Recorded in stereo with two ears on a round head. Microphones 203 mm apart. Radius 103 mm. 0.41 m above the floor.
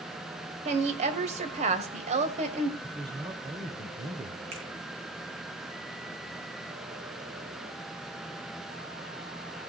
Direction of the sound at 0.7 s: 30° right (ahead or behind).